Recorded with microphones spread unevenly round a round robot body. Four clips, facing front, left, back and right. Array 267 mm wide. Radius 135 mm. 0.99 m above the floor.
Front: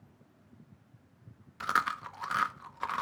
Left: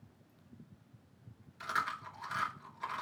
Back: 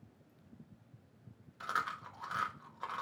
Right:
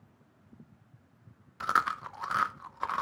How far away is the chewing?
About 0.7 m.